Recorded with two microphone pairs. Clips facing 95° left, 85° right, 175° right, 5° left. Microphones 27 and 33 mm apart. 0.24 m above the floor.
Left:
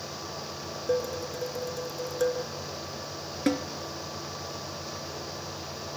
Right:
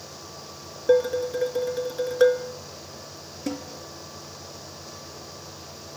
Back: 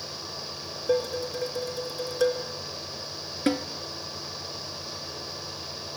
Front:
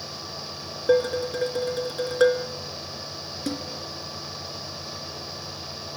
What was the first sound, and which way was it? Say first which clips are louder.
Dishes clattering: right 9 dB, front 5 dB; 35° right.